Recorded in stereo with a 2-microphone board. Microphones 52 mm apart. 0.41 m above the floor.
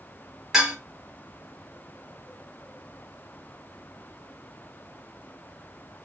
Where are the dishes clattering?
15° right (ahead or behind), 1.4 m.